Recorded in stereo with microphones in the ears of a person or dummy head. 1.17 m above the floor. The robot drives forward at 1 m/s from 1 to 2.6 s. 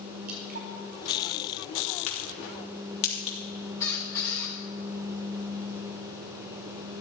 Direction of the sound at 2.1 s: 40° left (ahead or behind).